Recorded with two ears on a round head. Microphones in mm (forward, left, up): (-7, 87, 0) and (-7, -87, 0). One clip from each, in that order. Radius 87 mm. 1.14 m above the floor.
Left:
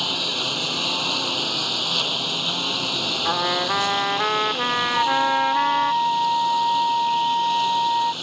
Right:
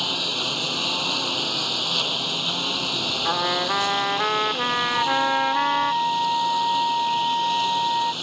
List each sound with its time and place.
0.0 s a lawn mower: centre (ahead or behind)
3.2 s a trumpet: centre (ahead or behind)
4.9 s a flute: 70° left (ahead or behind)